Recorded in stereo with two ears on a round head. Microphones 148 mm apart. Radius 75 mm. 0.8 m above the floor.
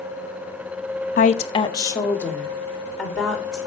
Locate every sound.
1.2 s a woman speaking: 50° left (ahead or behind), 0.8 m; by 3.6 s centre (ahead or behind), 3 m